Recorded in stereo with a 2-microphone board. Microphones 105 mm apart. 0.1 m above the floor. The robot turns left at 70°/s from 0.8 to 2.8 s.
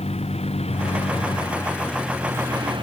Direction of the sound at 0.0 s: 85° left.